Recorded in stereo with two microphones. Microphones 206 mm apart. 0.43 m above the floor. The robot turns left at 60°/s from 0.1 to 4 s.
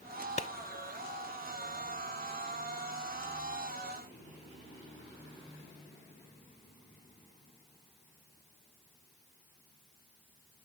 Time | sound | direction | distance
0.4 | a clap | 35° left (ahead or behind) | ?